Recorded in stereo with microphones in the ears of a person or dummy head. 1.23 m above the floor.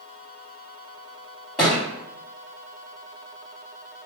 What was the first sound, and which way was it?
A thud, 5° left (ahead or behind).